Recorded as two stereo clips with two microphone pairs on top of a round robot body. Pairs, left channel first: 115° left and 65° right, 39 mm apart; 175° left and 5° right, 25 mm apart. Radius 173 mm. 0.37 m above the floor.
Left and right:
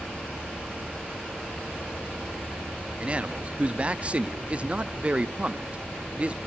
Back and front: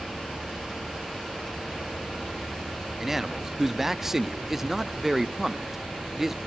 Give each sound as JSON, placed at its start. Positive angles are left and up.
{"t": 3.0, "sound": "a man speaking", "azimuth_deg": -50, "distance_m": 0.8}